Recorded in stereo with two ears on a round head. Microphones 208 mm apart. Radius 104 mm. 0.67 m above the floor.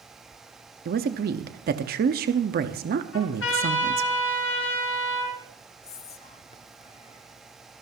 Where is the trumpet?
55° left (ahead or behind), 3.5 m.